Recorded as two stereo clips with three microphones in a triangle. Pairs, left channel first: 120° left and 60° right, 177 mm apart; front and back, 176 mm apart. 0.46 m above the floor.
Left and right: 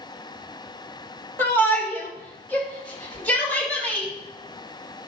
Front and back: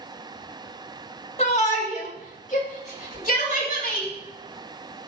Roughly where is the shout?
Ahead left.